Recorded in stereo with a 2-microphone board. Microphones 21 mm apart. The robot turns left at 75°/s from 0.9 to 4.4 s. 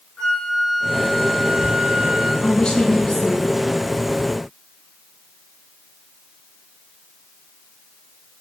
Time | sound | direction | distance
0.2 | a flute | 100° left | 4.5 m
2.4 | a woman speaking | 80° left | 2.5 m